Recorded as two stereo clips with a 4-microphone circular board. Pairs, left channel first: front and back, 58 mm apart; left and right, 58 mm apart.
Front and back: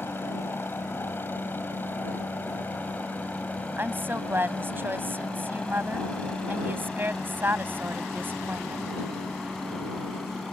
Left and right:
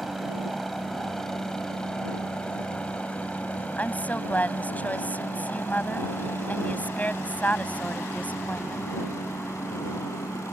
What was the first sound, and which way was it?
A helicopter, straight ahead.